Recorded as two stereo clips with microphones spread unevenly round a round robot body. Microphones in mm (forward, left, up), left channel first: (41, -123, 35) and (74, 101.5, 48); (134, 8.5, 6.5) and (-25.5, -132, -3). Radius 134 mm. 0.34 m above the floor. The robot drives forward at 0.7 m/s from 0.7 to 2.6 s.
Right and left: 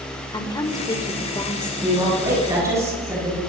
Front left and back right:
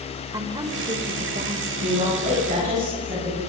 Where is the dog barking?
No dog barking in this recording.